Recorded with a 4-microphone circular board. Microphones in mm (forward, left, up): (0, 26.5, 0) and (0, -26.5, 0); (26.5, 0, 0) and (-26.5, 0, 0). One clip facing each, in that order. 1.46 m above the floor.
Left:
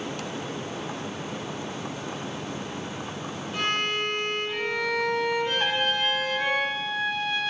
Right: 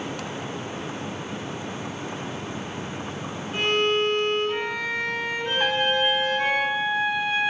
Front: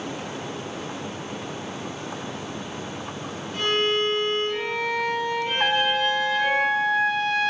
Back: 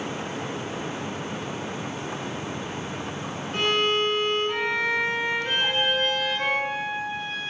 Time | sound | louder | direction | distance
3.5 | a violin | right 5 dB, even | 145° right | 4.5 m
5.6 | a trumpet | right 3 dB, front 4 dB | 10° right | 0.7 m